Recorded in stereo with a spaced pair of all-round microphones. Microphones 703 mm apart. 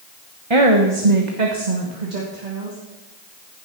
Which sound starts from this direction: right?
A woman speaking, at 0.5 s.